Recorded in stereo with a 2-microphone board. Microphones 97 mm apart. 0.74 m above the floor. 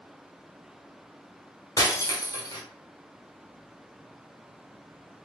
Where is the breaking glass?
35° left (ahead or behind), 1.2 m.